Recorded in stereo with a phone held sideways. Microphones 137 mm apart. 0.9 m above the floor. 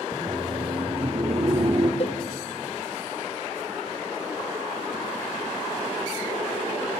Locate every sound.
0.1 s laughter: 20° right (ahead or behind), 0.5 m; by 1.9 s 45° right (ahead or behind), 1.9 m
2.0 s a cowbell: 45° left (ahead or behind), 0.9 m